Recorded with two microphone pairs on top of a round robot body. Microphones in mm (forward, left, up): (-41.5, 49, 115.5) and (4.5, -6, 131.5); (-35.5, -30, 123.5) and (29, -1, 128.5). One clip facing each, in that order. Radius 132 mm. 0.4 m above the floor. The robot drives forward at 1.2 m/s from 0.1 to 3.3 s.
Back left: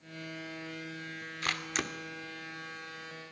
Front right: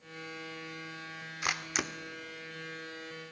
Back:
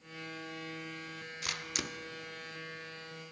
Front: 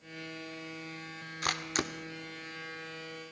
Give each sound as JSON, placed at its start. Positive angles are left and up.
{"t": 1.4, "sound": "a camera shutter", "azimuth_deg": 35, "distance_m": 2.0}